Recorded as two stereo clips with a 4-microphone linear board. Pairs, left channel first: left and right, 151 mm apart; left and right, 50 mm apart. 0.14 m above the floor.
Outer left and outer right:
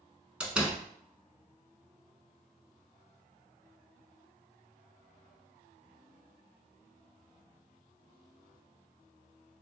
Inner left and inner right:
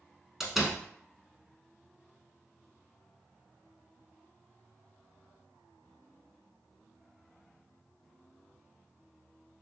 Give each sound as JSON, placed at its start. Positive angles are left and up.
{"t": 0.4, "sound": "a door slam", "side_deg": -5, "distance_m": 0.8}